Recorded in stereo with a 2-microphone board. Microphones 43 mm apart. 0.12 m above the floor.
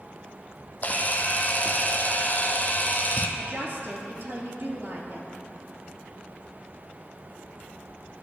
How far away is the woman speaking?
About 2.5 m.